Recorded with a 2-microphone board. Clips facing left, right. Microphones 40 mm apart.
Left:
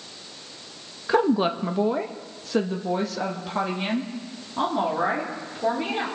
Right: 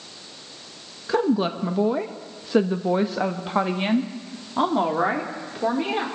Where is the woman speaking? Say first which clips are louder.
Left 1 dB; 20° left (ahead or behind), 0.7 m; by 6.0 s 30° right (ahead or behind), 2.5 m.